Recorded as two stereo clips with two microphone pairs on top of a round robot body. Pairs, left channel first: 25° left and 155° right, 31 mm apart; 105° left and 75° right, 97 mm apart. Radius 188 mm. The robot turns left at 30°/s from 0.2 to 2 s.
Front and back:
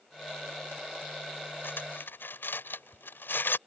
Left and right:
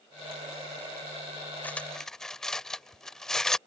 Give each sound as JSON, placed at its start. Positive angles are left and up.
{"t": 1.6, "sound": "cutlery clinking", "azimuth_deg": 30}